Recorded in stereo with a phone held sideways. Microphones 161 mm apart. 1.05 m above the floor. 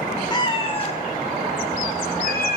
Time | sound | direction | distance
0.3 | a cat meowing | 25° left (ahead or behind) | 2 m